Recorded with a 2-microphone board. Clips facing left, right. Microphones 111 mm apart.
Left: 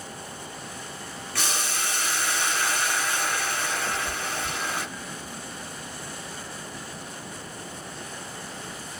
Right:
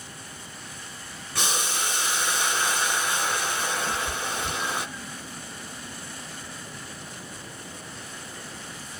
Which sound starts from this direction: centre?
Boiling, at 1.4 s.